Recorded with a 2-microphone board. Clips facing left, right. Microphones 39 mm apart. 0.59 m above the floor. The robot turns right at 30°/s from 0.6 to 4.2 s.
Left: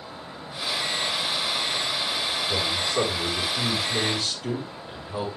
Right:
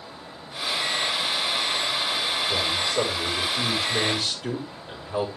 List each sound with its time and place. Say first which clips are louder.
2.5 s a man speaking: left 1 dB; 140° left, 5.5 m; by 5.3 s 165° right, 5.5 m